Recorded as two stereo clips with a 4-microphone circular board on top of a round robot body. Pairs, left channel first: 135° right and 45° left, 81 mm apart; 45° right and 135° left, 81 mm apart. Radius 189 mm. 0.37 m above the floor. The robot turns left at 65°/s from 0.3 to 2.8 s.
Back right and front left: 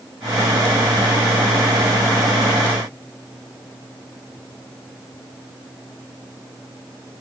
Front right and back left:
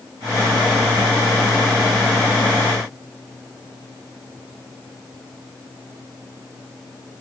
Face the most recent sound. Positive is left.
No sound to turn to.